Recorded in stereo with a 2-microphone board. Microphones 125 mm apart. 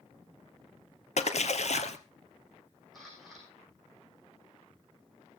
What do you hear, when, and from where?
1.2 s a splash: 65° left (ahead or behind), 1.4 m
2.9 s a camera shutter: centre (ahead or behind), 7 m